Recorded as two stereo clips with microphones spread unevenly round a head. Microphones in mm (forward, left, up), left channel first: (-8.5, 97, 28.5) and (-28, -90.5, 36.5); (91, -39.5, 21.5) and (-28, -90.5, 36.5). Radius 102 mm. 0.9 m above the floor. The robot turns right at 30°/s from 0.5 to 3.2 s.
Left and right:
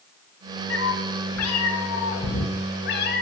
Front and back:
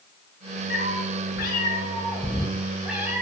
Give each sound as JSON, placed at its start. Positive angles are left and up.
{"t": 0.7, "sound": "a cat meowing", "azimuth_deg": 50, "distance_m": 1.4}